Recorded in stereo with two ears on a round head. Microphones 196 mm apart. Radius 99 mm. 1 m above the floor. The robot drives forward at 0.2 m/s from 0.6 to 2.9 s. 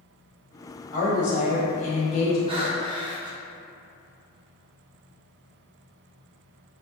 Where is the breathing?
25° right (ahead or behind), 0.5 m; by 3.4 s 20° right (ahead or behind), 0.6 m.